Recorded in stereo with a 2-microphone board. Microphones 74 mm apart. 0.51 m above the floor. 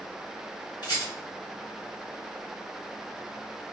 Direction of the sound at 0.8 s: 65° left (ahead or behind).